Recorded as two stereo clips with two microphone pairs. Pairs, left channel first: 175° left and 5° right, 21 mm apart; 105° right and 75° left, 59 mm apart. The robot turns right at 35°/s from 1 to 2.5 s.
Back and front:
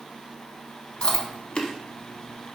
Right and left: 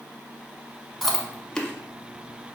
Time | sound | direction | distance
1.0 | chewing | 160° left | 0.5 m